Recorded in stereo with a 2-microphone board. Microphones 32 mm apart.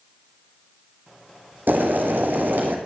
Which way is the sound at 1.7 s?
85° right.